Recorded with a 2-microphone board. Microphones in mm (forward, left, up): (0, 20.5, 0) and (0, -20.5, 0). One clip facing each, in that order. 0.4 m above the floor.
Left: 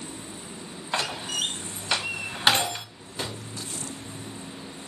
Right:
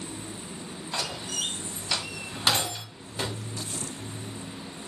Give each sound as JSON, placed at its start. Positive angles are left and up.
{"t": 0.9, "sound": "a door slam", "side_deg": 35, "distance_m": 1.3}
{"t": 3.2, "sound": "a gunshot", "side_deg": -5, "distance_m": 1.0}